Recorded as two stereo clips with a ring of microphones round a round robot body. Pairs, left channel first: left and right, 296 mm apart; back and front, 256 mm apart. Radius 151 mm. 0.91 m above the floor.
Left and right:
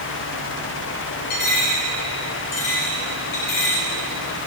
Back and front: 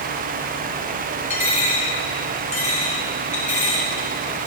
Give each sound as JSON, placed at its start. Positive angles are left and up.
{"t": 1.3, "sound": "a dropped coin", "azimuth_deg": 115, "distance_m": 6.0}